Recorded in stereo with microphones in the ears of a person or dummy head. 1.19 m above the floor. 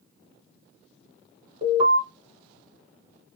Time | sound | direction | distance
1.6 | an alarm | 30° right (ahead or behind) | 1.7 m